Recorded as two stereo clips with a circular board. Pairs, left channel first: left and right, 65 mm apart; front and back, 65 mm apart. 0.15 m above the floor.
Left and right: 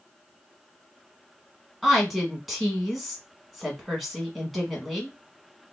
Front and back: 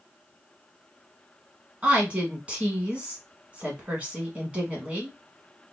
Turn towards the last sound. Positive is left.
turn(degrees=180)